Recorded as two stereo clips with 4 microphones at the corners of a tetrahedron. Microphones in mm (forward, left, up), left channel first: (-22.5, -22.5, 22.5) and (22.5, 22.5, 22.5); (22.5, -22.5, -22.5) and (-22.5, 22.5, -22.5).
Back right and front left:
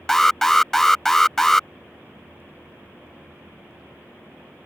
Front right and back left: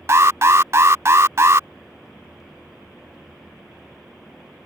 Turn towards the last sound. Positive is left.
turn(degrees=145)